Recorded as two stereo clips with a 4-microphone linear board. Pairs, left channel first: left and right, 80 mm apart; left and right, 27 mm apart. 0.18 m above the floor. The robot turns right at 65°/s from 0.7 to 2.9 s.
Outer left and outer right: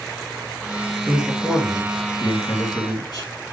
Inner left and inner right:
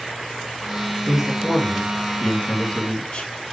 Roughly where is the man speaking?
Centre.